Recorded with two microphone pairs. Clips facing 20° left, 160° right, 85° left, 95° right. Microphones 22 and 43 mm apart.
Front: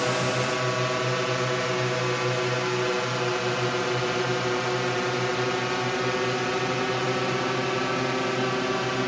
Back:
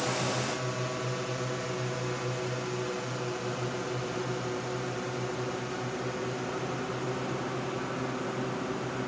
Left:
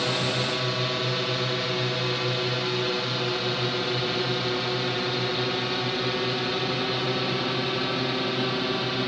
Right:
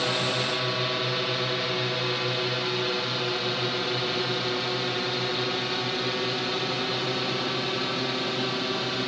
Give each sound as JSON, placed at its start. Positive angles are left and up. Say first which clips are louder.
{"t": 0.0, "sound": "a drone", "louder": "front 6 dB, even", "azimuth_deg": -10}